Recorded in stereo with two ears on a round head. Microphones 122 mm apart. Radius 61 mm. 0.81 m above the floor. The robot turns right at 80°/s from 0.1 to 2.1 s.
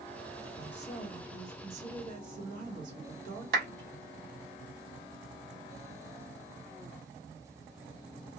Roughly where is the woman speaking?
Behind left.